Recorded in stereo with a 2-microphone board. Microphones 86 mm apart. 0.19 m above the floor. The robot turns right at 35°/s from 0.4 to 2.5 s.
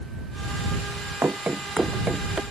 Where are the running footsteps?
25° right (ahead or behind); by 2.4 s 5° right (ahead or behind).